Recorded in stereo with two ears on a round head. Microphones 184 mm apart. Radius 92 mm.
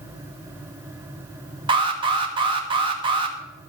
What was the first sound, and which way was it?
An alarm, 25° right (ahead or behind).